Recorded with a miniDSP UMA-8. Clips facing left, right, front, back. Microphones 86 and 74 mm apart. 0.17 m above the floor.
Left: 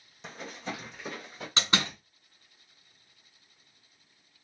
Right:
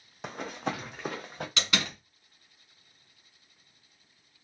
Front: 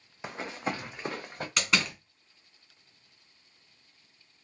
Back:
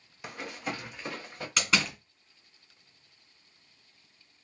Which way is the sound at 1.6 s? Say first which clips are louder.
Left 3 dB, back 1 dB; 85° left.